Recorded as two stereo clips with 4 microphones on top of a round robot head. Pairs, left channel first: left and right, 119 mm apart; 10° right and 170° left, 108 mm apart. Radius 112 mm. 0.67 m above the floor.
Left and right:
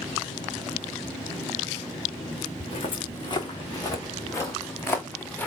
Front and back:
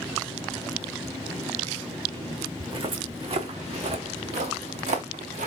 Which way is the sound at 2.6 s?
130° left.